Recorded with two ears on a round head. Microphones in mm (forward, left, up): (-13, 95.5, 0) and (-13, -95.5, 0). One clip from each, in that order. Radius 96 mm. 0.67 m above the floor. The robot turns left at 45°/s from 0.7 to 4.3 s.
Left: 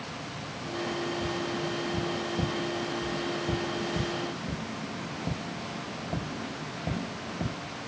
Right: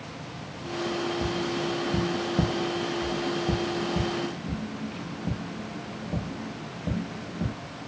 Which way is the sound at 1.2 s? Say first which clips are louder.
Right 3 dB; 75° right (ahead or behind).